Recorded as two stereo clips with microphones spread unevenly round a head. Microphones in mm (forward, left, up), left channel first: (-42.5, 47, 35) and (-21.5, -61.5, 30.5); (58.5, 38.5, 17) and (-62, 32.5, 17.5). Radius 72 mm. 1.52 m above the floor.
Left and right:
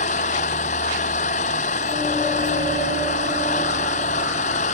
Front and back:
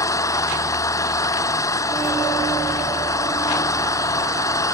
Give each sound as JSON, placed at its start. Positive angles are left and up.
{"t": 0.0, "sound": "an engine running", "azimuth_deg": 65}